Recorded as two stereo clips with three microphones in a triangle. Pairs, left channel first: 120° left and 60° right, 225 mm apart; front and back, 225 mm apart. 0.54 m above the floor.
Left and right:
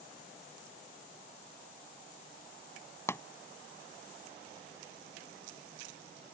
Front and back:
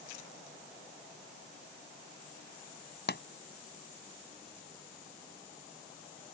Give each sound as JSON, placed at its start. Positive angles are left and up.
{"t": 3.1, "sound": "a pop", "azimuth_deg": 40}